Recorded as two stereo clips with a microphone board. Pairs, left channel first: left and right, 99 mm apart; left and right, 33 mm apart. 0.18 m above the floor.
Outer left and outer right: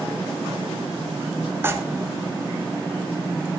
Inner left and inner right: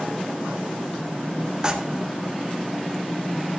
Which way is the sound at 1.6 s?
20° right (ahead or behind).